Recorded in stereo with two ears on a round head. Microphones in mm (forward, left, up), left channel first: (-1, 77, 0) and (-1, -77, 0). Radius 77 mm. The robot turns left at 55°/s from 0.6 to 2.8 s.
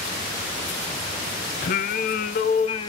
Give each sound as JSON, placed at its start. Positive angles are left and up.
{"t": 1.6, "sound": "singing", "azimuth_deg": 105, "distance_m": 0.7}